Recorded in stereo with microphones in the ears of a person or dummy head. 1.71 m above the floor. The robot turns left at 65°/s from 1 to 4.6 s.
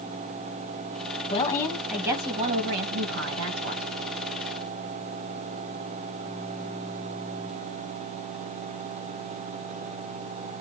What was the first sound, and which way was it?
A woman speaking, 35° left.